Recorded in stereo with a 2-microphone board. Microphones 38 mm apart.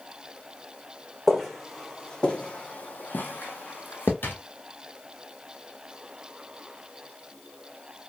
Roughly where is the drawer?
Left.